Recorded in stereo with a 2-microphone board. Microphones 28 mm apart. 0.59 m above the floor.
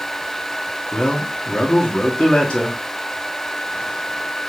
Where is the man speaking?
35° left (ahead or behind), 0.7 m.